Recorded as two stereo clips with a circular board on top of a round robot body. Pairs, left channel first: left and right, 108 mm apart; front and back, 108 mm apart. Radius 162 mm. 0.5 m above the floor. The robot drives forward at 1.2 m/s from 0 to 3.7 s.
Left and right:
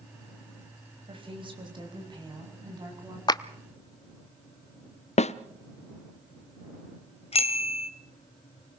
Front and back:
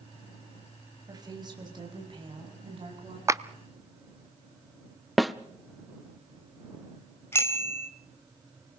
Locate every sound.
1.1 s a woman speaking: 125° right, 4.5 m; by 3.2 s 145° right, 6.5 m
3.3 s a clap: 125° left, 0.9 m; by 3.4 s 135° left, 0.9 m
5.2 s a snare drum: 90° left, 0.6 m
7.3 s a bicycle bell: 70° left, 2.5 m